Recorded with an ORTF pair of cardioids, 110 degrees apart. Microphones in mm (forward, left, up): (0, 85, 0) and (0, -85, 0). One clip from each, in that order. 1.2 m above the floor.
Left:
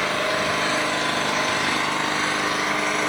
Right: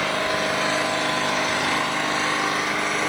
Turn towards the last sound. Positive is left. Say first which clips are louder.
# even
turn(degrees=-5)